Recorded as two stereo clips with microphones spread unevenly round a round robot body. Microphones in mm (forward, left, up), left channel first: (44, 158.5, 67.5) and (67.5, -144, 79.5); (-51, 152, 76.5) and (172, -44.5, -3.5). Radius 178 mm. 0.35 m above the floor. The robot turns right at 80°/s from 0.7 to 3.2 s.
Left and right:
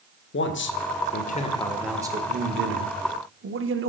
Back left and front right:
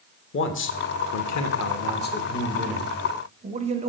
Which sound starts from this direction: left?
A man speaking, at 0.3 s.